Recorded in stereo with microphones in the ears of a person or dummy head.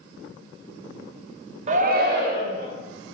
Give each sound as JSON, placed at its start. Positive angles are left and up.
{"t": 1.7, "sound": "a shout", "side_deg": -35, "distance_m": 0.5}